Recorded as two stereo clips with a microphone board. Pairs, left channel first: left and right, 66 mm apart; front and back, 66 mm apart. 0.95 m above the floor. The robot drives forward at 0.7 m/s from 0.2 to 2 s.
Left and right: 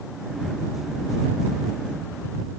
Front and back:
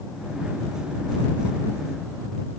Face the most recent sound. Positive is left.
No sound to turn to.